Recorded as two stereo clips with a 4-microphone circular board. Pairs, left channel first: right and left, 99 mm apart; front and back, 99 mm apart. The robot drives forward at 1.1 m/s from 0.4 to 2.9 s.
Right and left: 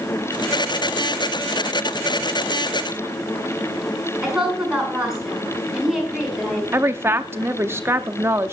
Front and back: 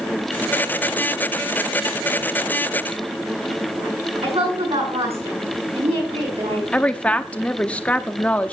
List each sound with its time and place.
4.2 s a woman speaking: 175° left, 6.5 m
6.7 s a woman speaking: 60° left, 0.7 m